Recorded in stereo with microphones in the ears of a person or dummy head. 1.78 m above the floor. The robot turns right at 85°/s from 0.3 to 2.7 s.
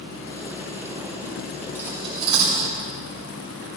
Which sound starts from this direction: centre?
Cutlery clinking, at 1.8 s.